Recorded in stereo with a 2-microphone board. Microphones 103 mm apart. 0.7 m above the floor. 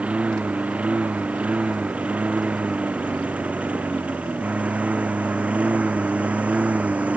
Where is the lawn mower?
15° right (ahead or behind).